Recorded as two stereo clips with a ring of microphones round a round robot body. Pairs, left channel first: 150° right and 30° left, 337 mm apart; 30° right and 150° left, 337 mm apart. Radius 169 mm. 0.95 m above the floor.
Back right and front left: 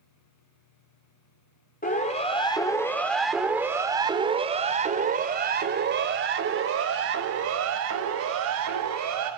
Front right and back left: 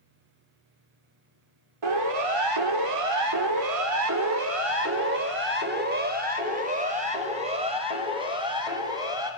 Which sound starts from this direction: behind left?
A siren, at 1.8 s.